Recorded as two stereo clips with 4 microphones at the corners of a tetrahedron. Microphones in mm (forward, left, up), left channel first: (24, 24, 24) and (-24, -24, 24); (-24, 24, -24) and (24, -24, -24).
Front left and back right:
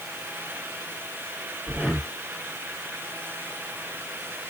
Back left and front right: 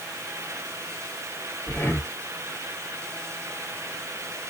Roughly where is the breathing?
Behind.